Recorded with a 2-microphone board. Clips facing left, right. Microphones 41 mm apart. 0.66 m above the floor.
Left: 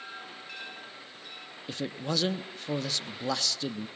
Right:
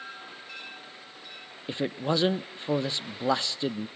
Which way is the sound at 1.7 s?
25° right (ahead or behind).